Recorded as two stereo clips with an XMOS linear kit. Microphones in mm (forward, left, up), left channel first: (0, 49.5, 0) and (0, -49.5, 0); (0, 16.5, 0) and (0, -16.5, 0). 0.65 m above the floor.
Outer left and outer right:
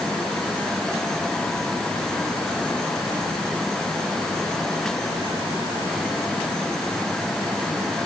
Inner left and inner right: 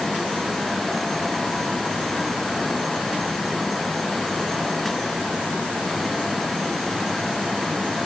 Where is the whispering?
No whispering in this recording.